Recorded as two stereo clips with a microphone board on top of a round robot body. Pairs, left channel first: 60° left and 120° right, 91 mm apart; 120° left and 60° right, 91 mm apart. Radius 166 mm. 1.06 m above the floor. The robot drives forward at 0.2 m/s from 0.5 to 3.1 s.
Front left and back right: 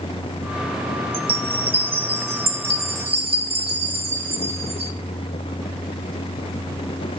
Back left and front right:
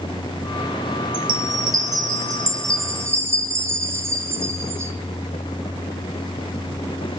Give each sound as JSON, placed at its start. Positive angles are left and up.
{"t": 1.1, "sound": "a chime", "azimuth_deg": -100, "distance_m": 1.0}